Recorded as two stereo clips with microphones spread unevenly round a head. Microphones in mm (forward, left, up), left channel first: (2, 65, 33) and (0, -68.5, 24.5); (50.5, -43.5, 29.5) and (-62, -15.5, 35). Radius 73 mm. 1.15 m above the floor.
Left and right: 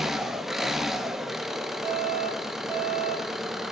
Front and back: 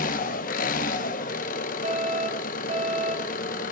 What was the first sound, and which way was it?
An engine running, 5° right.